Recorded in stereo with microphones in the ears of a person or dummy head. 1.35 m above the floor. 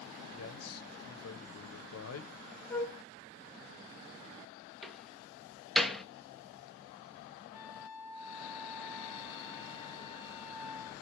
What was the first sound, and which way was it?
A man speaking, 70° left (ahead or behind).